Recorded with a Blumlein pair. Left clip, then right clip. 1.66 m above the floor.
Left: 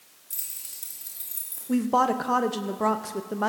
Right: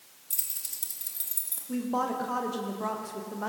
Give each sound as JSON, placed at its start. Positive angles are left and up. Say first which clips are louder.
{"t": 0.3, "sound": "keys jangling", "louder": "right 2 dB", "azimuth_deg": -15, "distance_m": 3.0}
{"t": 1.7, "sound": "a woman speaking", "louder": "left 7 dB", "azimuth_deg": 25, "distance_m": 1.0}